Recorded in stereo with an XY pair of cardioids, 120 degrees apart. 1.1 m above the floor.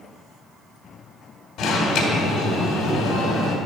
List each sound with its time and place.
1.6 s an alarm: 60° left, 2 m